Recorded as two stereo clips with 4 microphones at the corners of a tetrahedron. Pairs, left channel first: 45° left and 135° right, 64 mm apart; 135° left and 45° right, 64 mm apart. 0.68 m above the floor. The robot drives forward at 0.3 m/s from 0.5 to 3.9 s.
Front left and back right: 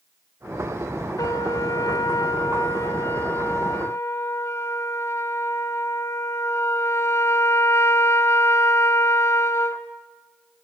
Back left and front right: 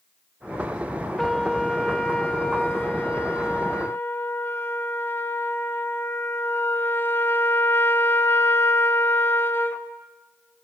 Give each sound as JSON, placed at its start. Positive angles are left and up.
{"t": 1.2, "sound": "a trumpet", "azimuth_deg": 50, "distance_m": 1.5}